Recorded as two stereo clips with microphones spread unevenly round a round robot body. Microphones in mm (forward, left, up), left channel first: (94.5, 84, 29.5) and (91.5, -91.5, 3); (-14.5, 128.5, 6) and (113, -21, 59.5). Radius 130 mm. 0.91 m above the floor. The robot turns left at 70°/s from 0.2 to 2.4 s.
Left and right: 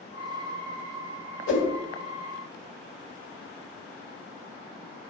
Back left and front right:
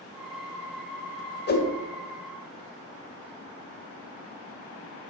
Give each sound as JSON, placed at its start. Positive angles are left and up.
{"t": 1.5, "sound": "a whoosh", "azimuth_deg": 95, "distance_m": 2.0}